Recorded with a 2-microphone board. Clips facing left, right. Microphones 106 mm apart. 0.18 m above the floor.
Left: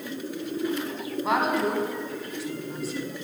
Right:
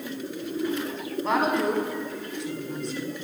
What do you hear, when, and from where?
1.2 s a woman speaking: 5° left (ahead or behind), 1.3 m